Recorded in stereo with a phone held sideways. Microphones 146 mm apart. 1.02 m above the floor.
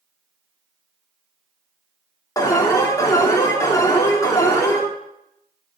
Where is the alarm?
20° left (ahead or behind), 2.5 m.